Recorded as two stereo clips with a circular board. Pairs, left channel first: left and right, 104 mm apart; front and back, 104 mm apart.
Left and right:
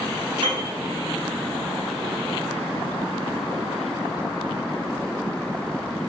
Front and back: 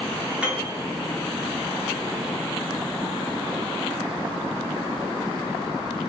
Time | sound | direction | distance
0.4 | a piano | 105° right | 1.0 m